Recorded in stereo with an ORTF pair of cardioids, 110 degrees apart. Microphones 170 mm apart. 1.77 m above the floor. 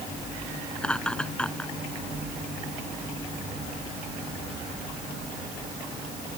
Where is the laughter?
5° left.